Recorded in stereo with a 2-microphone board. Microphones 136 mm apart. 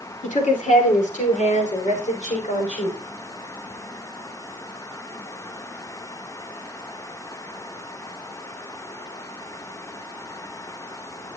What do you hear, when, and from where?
0.2 s a woman speaking: 65° left (ahead or behind), 2.5 m; by 3.0 s 60° left (ahead or behind), 4.5 m